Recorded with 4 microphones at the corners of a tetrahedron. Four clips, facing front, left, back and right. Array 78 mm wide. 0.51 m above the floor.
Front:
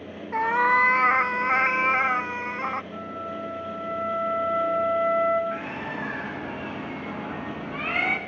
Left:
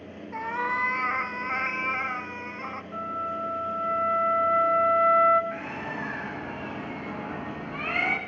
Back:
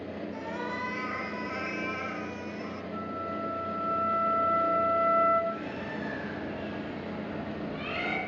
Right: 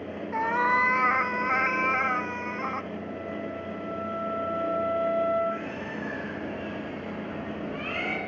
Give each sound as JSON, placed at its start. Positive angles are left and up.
{"t": 0.3, "sound": "a cat meowing", "azimuth_deg": -15, "distance_m": 0.9}
{"t": 2.9, "sound": "a flute", "azimuth_deg": 80, "distance_m": 3.5}
{"t": 5.5, "sound": "a bird", "azimuth_deg": 30, "distance_m": 3.5}